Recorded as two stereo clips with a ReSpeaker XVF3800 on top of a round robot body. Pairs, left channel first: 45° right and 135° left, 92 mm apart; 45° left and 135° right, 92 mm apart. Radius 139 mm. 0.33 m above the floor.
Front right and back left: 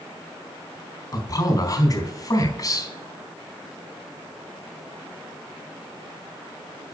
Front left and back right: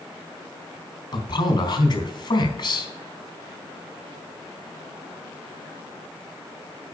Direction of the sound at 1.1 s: 5° left.